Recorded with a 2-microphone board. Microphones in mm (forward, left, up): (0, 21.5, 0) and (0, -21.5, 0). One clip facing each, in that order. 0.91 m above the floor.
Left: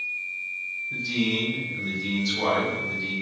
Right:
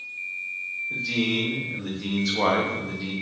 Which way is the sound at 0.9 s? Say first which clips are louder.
Right 1 dB; 50° right (ahead or behind).